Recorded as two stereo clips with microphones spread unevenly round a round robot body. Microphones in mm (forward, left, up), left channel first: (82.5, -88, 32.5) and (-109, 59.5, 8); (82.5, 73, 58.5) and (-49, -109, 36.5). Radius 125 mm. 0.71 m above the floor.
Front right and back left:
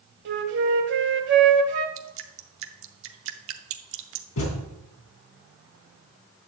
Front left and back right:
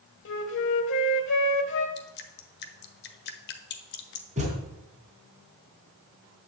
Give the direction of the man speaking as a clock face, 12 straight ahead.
I don't hear a man speaking.